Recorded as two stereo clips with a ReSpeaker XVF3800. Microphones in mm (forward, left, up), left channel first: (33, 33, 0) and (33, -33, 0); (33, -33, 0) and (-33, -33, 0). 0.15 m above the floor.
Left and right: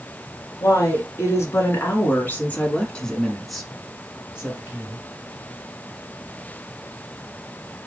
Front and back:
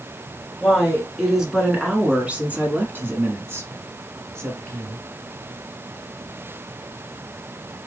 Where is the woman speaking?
90° left, 2.0 m; by 5.0 s 150° right, 2.0 m.